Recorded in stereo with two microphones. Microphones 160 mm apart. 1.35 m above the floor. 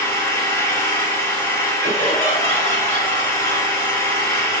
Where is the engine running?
20° left (ahead or behind), 2.5 m.